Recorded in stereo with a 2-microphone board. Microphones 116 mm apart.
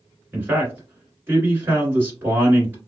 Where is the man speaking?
20° right (ahead or behind), 1.6 m.